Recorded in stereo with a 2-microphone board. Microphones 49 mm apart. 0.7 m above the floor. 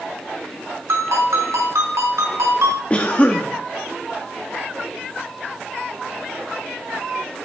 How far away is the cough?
About 0.8 m.